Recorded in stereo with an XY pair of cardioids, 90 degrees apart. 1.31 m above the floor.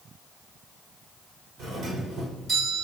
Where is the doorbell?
60° right, 5.5 m.